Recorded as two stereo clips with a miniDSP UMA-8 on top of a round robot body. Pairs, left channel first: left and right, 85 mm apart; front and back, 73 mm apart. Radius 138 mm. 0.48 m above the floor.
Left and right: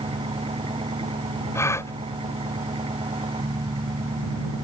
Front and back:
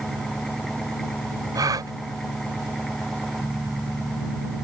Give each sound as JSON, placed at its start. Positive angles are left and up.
{"t": 0.0, "sound": "an engine running", "azimuth_deg": -85}
{"t": 1.6, "sound": "a gasp", "azimuth_deg": 145}